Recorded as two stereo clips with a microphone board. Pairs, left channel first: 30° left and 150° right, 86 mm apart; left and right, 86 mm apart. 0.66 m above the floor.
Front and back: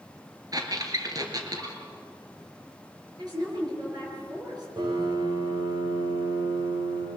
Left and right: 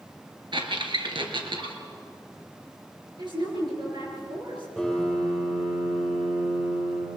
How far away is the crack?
No crack in this recording.